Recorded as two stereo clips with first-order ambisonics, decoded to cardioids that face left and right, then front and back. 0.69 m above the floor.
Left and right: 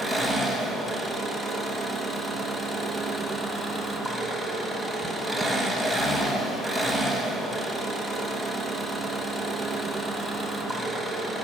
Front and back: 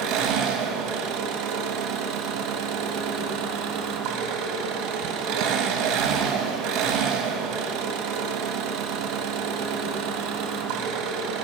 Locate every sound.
0.0 s an engine running: 175° left, 1.1 m